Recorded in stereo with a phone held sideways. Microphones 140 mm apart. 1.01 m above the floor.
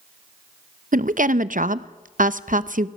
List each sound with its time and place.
0.9 s a woman speaking: 75° right (ahead or behind), 0.7 m